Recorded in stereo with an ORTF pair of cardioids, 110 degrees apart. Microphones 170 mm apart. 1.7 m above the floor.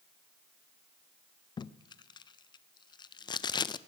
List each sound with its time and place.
1.6 s tape being pulled: 30° left, 0.5 m